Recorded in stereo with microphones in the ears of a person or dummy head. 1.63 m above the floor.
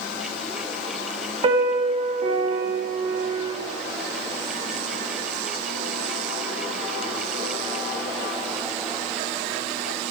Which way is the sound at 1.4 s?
30° right (ahead or behind).